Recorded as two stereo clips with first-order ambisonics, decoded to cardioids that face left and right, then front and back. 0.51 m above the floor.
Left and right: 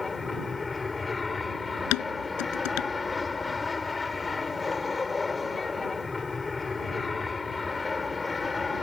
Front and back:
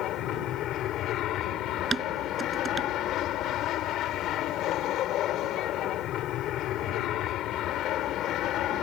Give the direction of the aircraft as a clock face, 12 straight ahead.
11 o'clock.